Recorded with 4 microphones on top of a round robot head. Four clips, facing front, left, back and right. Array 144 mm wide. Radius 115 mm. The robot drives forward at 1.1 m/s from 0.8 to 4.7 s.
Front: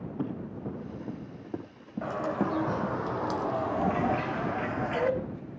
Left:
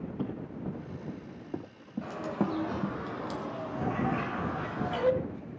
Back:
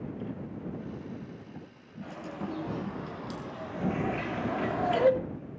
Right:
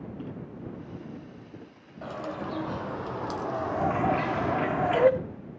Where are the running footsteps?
30° left, 5.5 m; by 3.0 s 60° left, 2.5 m.